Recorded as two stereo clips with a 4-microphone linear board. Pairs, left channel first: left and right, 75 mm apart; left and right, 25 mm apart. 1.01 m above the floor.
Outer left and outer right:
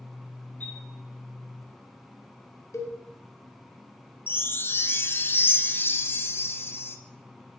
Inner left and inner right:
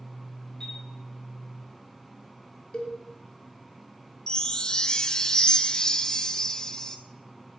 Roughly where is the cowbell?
Left.